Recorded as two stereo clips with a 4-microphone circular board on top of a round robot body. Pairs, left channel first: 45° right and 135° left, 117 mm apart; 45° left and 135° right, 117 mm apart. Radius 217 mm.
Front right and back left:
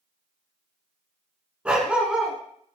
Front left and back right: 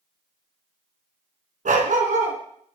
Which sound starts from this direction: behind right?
A dog barking, at 1.6 s.